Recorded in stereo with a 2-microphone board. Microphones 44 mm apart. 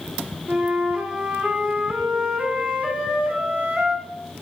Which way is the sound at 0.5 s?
30° right (ahead or behind).